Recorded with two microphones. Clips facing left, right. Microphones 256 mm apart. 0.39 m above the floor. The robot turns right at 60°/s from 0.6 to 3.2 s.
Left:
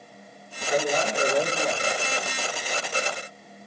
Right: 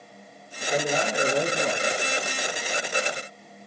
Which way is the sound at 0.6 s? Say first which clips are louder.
Left 1 dB; 165° left.